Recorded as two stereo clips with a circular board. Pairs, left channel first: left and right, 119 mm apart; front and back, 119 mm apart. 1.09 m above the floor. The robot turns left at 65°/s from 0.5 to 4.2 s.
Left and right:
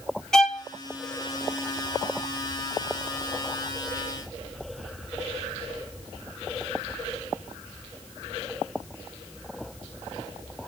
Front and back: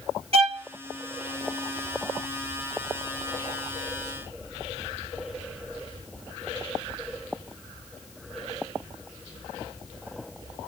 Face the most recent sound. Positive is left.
turn(degrees=-65)